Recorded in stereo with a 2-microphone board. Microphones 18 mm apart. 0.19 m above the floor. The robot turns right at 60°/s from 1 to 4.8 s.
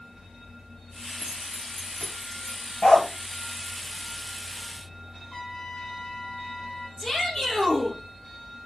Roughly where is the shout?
Left.